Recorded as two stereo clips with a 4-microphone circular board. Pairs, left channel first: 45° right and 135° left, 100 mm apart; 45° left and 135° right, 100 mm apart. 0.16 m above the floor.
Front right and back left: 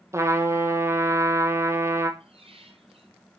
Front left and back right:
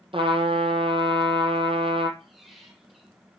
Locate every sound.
0.1 s a trumpet: 165° right, 0.9 m
2.2 s a squeak: 135° left, 1.6 m